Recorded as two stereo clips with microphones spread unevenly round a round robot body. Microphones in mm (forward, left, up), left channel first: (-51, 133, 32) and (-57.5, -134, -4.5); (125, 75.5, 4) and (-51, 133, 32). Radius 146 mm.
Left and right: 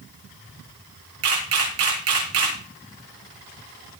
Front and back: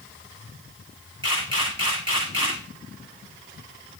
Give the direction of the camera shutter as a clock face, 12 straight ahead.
4 o'clock.